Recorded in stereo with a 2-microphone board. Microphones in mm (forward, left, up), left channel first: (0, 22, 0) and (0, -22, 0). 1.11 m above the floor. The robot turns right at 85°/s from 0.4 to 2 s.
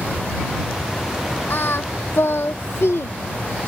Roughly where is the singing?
Left.